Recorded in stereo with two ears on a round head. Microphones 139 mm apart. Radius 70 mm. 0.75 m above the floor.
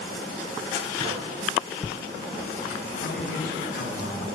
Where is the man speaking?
65° left (ahead or behind), 8 m.